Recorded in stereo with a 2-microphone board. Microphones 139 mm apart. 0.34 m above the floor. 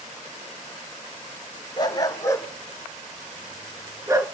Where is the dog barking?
30° left (ahead or behind), 1.6 m; by 4.3 s 25° right (ahead or behind), 1.4 m.